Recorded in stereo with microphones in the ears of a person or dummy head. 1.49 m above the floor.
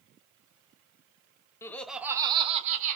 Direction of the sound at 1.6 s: 25° left (ahead or behind).